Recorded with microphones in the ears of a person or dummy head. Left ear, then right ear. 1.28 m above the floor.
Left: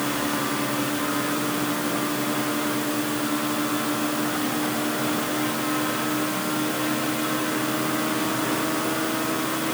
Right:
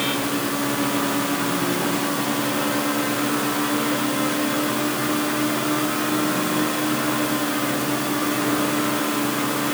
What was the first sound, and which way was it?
Only background noise.